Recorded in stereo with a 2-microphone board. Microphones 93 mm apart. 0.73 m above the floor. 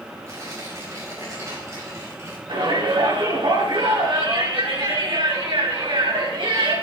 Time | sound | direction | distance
0.3 | tearing paper | 35° right (ahead or behind) | 6.5 m
2.5 | a shout | 75° right (ahead or behind) | 4 m